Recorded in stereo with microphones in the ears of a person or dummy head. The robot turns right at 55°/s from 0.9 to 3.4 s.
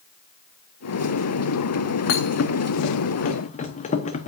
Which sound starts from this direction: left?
A thud, at 2.1 s.